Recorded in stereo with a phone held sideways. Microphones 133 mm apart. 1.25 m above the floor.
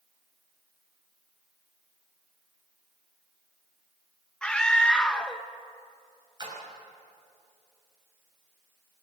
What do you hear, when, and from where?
4.4 s a scream: 5° left (ahead or behind), 1.2 m
6.4 s a splash: 35° right (ahead or behind), 6.5 m